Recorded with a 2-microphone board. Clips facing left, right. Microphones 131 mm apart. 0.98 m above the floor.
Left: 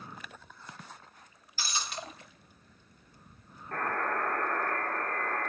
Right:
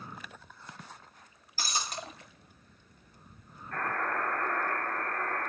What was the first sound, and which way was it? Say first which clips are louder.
Breaking glass: right 2 dB; 45° right (ahead or behind).